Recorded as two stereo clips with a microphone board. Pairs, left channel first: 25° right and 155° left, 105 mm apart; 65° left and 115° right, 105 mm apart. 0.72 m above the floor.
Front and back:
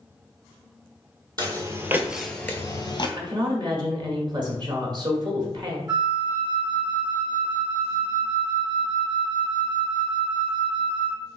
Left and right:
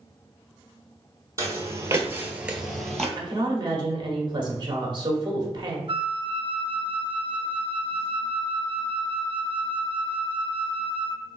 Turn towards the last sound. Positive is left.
turn(degrees=-150)